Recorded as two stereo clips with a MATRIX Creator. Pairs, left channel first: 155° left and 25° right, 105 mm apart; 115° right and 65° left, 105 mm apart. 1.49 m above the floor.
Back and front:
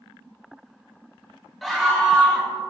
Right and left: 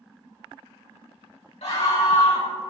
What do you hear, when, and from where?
1.6 s a scream: 115° right, 2 m